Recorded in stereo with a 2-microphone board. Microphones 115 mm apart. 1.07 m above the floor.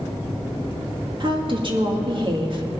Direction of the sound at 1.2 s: 45° right (ahead or behind).